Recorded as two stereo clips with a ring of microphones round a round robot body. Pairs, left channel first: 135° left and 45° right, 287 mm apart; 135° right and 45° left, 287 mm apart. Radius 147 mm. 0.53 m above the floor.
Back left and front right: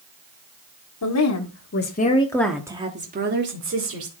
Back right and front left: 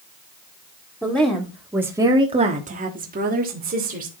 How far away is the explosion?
No explosion in this recording.